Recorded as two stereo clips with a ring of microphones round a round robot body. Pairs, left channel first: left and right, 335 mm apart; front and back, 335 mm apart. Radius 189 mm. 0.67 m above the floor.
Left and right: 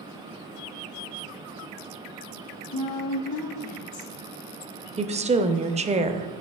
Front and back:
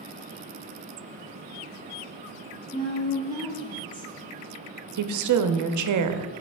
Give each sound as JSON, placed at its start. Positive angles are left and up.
{"t": 2.7, "sound": "a woman speaking", "azimuth_deg": 75, "distance_m": 1.5}
{"t": 5.0, "sound": "a woman speaking", "azimuth_deg": -160, "distance_m": 0.8}